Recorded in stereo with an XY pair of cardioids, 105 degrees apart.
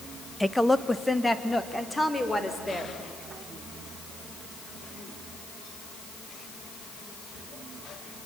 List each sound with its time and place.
0.4 s a woman speaking: 5° left, 1.0 m; by 3.0 s 10° left, 4 m